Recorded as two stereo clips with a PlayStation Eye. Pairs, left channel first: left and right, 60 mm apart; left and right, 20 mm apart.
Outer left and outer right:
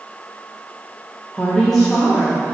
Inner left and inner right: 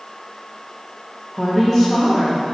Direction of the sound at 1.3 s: 15° left (ahead or behind).